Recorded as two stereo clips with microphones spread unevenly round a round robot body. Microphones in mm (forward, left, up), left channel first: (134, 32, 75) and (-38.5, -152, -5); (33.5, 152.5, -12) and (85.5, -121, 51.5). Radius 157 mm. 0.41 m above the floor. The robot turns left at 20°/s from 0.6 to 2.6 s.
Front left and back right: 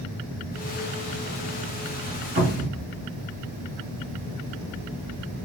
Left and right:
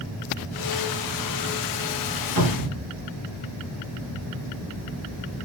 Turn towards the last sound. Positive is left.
turn(degrees=-75)